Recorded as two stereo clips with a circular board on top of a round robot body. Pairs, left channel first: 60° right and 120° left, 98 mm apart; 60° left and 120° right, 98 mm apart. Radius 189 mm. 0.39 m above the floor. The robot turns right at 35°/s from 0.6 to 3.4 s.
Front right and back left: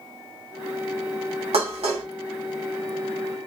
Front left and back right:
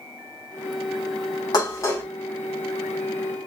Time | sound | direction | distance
1.5 | dishes clattering | 105° left | 2.5 m